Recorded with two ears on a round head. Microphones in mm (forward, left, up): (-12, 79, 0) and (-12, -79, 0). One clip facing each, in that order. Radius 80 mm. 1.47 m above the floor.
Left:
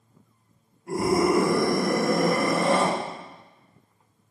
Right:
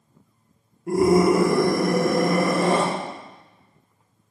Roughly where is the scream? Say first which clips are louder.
Right 5 dB; right.